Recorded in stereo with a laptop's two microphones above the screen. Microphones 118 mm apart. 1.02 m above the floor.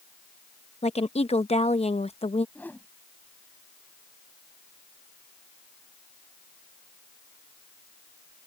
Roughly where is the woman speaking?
Left.